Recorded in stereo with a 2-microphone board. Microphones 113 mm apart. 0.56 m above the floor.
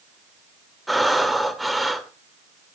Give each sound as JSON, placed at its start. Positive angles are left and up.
{"t": 0.9, "sound": "breathing", "side_deg": 0, "distance_m": 1.6}